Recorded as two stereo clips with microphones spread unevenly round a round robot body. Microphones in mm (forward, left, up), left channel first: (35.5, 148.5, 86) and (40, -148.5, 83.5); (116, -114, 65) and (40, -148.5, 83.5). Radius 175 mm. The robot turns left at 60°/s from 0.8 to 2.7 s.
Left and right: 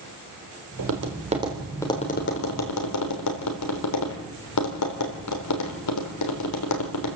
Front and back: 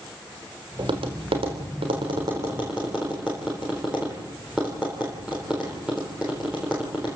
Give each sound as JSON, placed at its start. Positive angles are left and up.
{"t": 0.8, "sound": "tapping", "azimuth_deg": -125, "distance_m": 3.5}